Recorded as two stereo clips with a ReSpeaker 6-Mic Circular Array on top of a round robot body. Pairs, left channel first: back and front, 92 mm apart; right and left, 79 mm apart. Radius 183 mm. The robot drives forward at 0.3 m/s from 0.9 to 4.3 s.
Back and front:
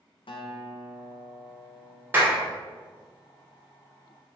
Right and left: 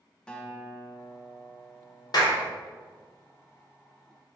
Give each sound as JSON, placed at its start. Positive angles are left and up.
{"t": 0.3, "sound": "a guitar", "azimuth_deg": -170, "distance_m": 0.6}
{"t": 2.1, "sound": "a clap", "azimuth_deg": -65, "distance_m": 1.1}